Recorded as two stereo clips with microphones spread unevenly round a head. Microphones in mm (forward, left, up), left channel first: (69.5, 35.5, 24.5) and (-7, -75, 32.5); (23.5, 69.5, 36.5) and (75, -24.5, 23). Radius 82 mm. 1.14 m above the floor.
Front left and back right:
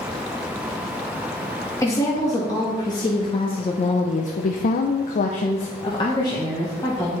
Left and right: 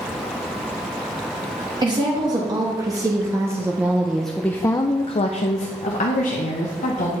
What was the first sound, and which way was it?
A woman speaking, 15° right.